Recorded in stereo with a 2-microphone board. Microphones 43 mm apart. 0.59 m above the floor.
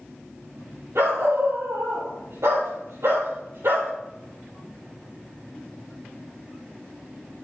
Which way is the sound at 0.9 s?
65° right (ahead or behind).